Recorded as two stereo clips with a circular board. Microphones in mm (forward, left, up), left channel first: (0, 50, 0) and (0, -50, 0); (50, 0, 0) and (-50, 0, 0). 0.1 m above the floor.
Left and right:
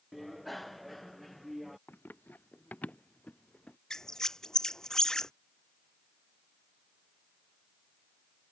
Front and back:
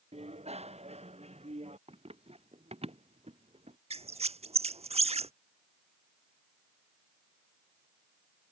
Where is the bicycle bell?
Straight behind.